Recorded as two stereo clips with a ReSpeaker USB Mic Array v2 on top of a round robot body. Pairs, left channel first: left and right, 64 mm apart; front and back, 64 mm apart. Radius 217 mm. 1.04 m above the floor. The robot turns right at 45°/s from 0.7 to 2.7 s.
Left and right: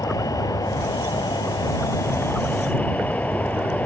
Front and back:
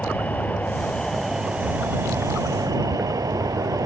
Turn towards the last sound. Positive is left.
turn(degrees=160)